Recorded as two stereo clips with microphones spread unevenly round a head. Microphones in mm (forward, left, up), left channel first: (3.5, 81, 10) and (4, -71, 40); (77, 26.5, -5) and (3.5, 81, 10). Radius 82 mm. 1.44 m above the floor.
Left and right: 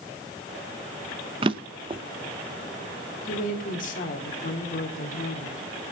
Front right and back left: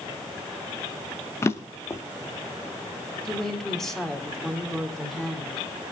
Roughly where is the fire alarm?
No fire alarm in this recording.